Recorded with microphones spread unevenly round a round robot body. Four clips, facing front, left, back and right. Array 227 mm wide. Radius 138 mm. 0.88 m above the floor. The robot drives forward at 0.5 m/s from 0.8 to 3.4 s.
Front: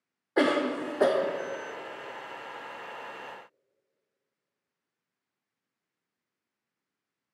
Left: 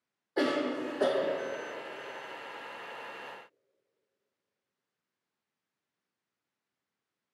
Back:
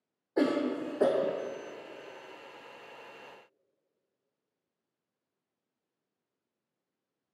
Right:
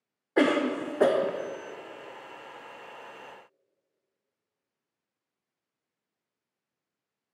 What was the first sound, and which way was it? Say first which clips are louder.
A cough: right 5 dB, front 3 dB; 45° right.